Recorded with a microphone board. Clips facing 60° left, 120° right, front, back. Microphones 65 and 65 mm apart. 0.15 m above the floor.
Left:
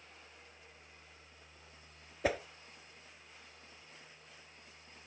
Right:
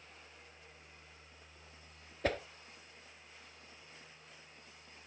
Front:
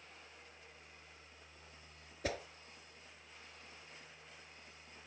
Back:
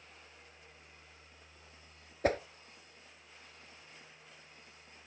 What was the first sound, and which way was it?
A whoosh, 140° left.